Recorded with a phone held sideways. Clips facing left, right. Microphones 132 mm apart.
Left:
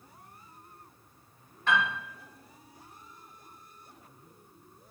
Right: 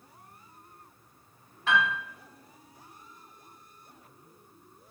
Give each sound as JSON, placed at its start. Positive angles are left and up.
{"t": 1.7, "sound": "a piano", "side_deg": -5, "distance_m": 1.4}